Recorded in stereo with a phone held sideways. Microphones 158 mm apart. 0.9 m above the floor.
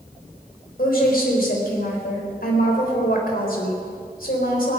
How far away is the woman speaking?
About 4 m.